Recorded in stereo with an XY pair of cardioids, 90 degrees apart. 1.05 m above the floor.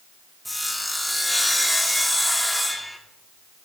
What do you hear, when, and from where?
0.5 s sawing: 10° left, 2.5 m